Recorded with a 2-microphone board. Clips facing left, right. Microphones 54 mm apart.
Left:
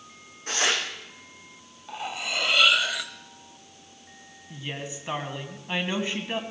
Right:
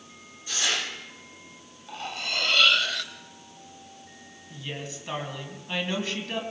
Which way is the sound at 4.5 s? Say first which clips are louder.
Left 1 dB; 20° left (ahead or behind).